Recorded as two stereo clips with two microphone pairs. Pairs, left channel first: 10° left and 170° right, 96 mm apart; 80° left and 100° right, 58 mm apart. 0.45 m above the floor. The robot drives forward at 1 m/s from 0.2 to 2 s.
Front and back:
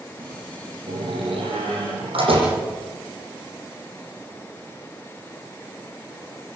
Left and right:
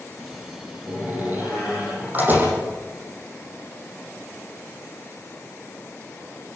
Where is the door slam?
155° right, 10 m.